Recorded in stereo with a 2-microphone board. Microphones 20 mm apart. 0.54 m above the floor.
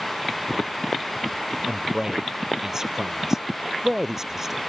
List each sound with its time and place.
1.7 s a man speaking: 30° right (ahead or behind); by 4.6 s 20° right (ahead or behind)